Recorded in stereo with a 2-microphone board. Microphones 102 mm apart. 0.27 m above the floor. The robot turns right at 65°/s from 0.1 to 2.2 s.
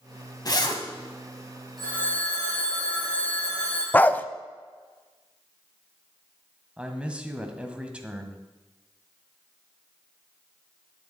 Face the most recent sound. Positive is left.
turn(degrees=-10)  # may be behind; listen again after turning